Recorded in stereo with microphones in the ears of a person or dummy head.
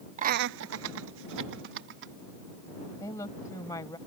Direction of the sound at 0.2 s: 30° right (ahead or behind).